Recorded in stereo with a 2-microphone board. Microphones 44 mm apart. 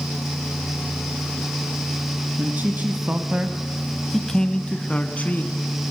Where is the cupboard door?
No cupboard door in this recording.